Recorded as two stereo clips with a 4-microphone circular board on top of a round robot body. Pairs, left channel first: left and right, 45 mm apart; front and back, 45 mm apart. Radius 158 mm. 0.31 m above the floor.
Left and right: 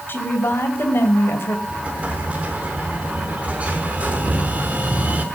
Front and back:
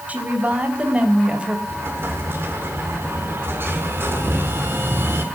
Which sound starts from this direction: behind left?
A woman speaking, at 0.1 s.